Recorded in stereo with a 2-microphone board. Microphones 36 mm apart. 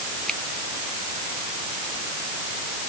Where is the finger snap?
20° left (ahead or behind).